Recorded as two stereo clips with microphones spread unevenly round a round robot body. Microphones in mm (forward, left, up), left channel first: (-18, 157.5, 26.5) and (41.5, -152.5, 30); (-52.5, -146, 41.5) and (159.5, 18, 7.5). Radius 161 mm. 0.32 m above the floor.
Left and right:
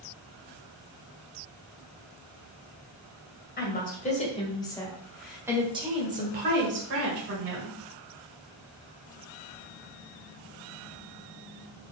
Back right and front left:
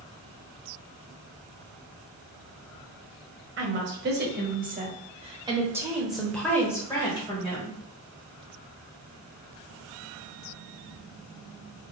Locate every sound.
3.6 s a woman speaking: 50° left, 1.6 m; by 7.8 s 75° right, 1.6 m